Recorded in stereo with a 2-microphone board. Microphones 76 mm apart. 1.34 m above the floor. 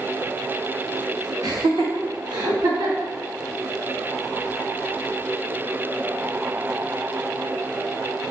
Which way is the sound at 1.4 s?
60° right (ahead or behind).